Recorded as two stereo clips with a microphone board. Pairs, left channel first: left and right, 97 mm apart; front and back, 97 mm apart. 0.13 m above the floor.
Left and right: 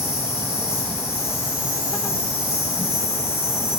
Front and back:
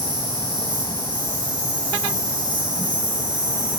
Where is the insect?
150° left, 6.5 m.